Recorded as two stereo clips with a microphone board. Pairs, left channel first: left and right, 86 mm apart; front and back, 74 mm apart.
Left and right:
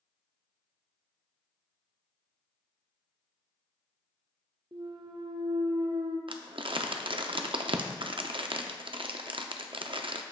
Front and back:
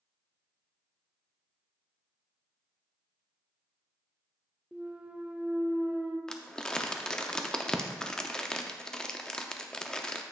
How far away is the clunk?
About 0.6 m.